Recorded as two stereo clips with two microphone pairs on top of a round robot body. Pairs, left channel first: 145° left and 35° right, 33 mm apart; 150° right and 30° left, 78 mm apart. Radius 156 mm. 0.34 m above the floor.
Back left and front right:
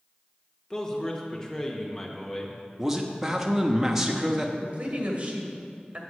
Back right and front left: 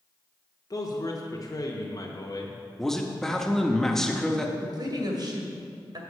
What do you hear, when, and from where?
0.7 s a man speaking: 135° right, 1.2 m
2.8 s a man speaking: 65° right, 1.1 m
4.6 s a woman speaking: 10° left, 2 m